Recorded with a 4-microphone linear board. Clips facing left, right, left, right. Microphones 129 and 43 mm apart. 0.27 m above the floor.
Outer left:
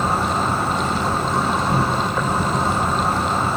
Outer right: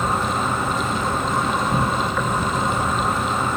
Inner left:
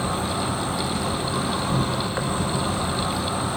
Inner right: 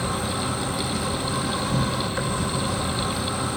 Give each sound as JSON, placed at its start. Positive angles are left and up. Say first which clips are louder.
{"t": 0.0, "sound": "an insect", "louder": "outer left 2 dB, inner left 1 dB", "side_deg": 35, "distance_m": 1.1}